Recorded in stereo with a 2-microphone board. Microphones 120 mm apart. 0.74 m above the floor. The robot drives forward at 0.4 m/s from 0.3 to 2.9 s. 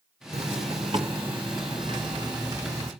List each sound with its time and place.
0.3 s a zipper: 60° right (ahead or behind), 1.3 m; by 2.9 s 30° right (ahead or behind), 2.0 m